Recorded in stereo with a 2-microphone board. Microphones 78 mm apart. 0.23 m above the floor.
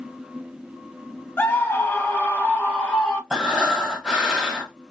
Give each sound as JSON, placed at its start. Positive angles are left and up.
{"t": 1.4, "sound": "a scream", "side_deg": 25, "distance_m": 1.1}
{"t": 3.3, "sound": "breathing", "side_deg": -10, "distance_m": 1.2}